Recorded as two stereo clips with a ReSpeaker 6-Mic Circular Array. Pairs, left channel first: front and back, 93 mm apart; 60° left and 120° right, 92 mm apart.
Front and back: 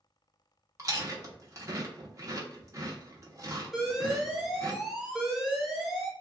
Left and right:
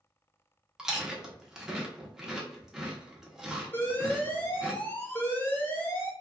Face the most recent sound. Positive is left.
turn(degrees=95)